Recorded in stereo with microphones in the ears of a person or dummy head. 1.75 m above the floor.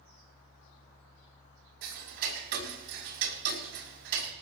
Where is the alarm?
I don't hear an alarm.